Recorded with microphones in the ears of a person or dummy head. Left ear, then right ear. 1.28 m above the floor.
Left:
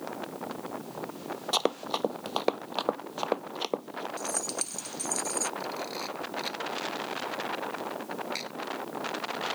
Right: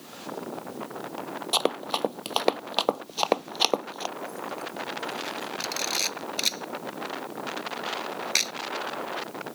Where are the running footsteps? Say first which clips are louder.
Right 3 dB; centre (ahead or behind); by 4.1 s 45° right (ahead or behind).